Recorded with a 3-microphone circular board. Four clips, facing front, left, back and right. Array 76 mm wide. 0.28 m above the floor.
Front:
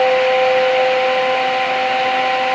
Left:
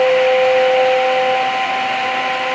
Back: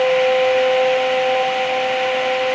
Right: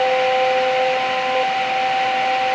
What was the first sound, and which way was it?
Only background noise.